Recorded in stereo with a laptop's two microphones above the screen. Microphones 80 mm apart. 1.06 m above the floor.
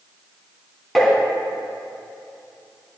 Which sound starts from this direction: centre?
Tapping, at 0.9 s.